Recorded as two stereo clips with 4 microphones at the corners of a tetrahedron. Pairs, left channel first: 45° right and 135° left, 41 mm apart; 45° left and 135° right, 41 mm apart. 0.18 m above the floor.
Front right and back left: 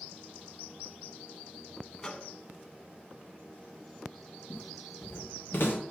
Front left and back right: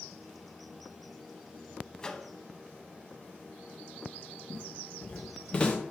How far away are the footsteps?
About 3 m.